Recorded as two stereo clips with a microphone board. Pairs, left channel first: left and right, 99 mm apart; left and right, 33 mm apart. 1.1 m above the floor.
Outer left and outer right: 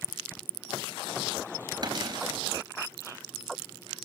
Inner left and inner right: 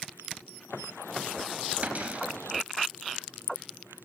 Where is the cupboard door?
45° right (ahead or behind), 3.5 m.